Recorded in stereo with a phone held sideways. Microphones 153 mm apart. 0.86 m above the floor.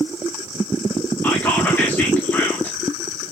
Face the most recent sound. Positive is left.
turn(degrees=10)  # may be behind; listen again after turning